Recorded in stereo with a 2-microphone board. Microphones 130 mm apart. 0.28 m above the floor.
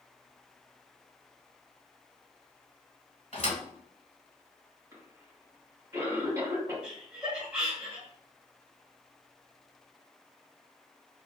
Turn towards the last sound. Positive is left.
turn(degrees=-10)  # may be behind; listen again after turning